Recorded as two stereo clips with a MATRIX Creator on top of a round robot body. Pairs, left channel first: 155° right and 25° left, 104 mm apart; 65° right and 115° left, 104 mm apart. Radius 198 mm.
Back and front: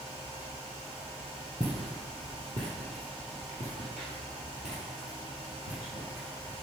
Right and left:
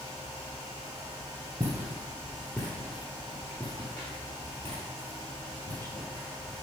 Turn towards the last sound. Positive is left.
turn(degrees=0)